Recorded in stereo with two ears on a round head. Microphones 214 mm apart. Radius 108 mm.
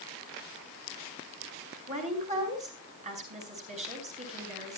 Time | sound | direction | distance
1.9 | a woman speaking | 30° right (ahead or behind) | 5 m